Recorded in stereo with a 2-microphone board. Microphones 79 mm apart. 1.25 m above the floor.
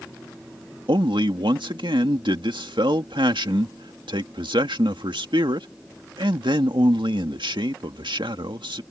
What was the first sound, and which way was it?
A man speaking, 85° right.